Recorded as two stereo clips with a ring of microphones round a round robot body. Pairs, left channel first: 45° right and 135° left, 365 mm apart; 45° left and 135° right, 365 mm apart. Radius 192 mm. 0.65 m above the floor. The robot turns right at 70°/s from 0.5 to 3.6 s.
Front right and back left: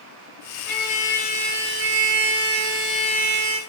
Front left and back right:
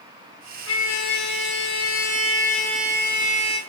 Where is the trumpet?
10° right, 1.0 m; by 3.6 s 165° right, 1.0 m.